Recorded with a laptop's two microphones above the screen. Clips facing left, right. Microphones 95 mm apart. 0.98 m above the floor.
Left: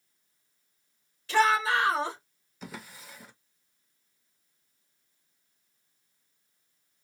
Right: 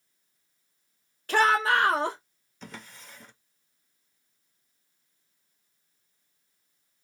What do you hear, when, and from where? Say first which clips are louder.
1.3 s a shout: right 1 dB; 50° right (ahead or behind), 1.5 m
2.6 s a drawer: left 2 dB; 5° left (ahead or behind), 0.6 m